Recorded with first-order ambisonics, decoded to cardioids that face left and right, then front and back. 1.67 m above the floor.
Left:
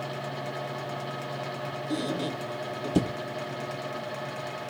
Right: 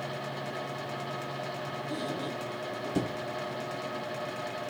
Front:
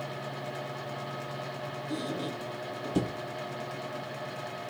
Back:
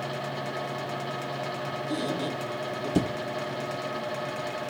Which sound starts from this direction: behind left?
A squeak, at 1.9 s.